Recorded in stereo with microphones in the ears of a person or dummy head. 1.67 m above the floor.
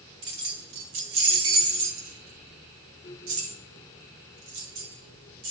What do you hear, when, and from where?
0.2 s keys jangling: 40° right (ahead or behind), 0.6 m; by 5.5 s 80° right, 4 m